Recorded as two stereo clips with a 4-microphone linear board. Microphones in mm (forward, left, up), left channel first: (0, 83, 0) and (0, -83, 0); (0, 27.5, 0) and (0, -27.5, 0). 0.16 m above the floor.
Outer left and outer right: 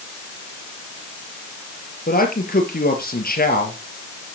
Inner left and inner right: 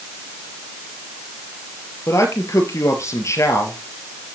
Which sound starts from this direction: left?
A man speaking, at 2.1 s.